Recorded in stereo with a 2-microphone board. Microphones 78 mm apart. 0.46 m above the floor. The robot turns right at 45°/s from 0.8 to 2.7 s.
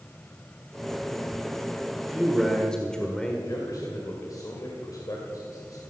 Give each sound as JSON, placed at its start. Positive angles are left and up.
{"t": 2.0, "sound": "a man speaking", "azimuth_deg": -15, "distance_m": 1.7}
{"t": 3.5, "sound": "a man speaking", "side_deg": 55, "distance_m": 2.5}